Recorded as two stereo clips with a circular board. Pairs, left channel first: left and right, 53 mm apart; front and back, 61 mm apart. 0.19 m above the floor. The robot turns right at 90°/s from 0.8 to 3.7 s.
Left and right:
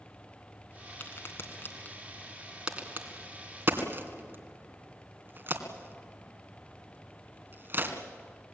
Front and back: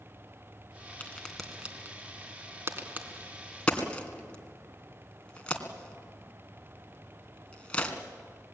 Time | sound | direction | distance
1.0 | a crack | 50° left | 2.5 m